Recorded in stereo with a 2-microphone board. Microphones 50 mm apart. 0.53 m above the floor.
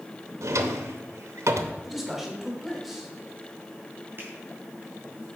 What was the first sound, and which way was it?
A drawer, 80° right.